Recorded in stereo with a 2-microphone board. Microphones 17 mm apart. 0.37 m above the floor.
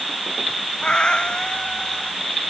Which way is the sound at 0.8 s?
60° left (ahead or behind).